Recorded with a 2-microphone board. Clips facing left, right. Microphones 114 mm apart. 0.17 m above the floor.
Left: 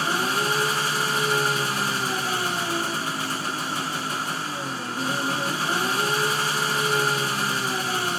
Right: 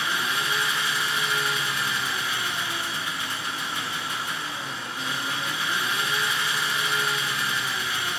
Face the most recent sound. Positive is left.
turn(degrees=40)  # may be behind; listen again after turning